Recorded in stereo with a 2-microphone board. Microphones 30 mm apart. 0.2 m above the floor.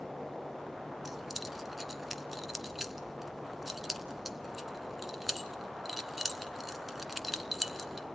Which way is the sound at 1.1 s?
5° right (ahead or behind).